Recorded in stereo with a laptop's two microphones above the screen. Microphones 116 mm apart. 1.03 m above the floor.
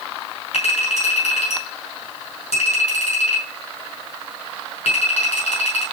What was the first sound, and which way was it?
A clink, 65° left (ahead or behind).